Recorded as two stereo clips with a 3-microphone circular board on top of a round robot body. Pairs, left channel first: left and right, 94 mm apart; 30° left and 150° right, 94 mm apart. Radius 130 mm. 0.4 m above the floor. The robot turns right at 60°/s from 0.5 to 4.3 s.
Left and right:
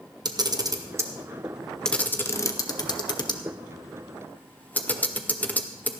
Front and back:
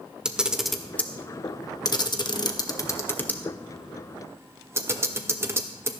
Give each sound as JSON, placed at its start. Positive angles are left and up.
{"t": 0.2, "sound": "a camera shutter", "azimuth_deg": -70, "distance_m": 1.5}